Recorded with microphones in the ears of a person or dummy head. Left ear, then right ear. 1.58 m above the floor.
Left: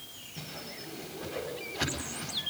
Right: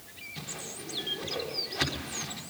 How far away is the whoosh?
About 4.5 m.